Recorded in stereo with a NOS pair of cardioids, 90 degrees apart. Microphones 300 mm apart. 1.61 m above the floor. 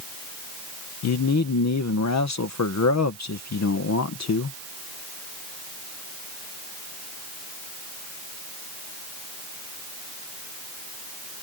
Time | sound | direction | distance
1.0 | a man speaking | 60° left | ?